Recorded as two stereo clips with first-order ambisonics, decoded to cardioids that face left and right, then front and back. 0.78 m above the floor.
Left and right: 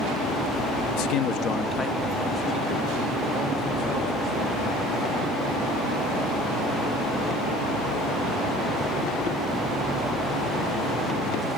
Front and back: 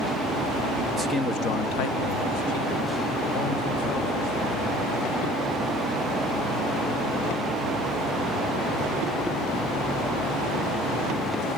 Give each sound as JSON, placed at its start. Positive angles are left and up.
{"t": 0.9, "sound": "a man speaking", "azimuth_deg": 100, "distance_m": 0.8}